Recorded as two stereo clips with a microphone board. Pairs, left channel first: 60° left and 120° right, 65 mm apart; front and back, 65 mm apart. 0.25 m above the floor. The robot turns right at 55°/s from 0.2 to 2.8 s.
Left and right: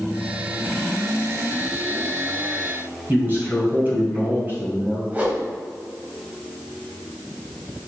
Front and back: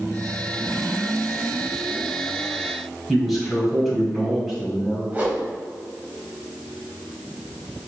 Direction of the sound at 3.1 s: 95° right.